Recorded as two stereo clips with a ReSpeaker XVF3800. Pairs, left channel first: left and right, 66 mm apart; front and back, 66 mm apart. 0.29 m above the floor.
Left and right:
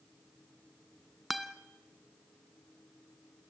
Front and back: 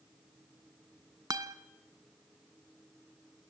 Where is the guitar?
Straight behind, 0.9 m.